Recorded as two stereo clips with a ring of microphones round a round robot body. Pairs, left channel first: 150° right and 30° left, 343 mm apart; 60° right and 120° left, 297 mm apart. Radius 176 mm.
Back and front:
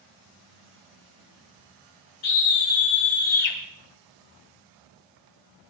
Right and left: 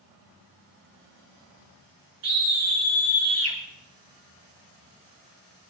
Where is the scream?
170° left, 4.5 m.